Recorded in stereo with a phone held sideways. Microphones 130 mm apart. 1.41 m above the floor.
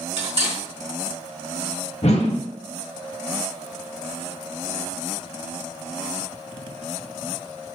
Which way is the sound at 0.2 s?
50° right (ahead or behind).